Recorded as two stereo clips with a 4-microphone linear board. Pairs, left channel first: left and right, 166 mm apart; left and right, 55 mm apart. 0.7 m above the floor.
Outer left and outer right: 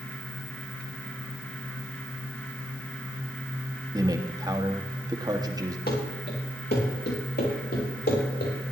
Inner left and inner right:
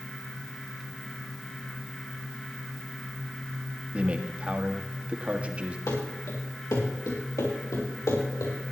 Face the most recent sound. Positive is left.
turn(degrees=75)  # may be behind; listen again after turning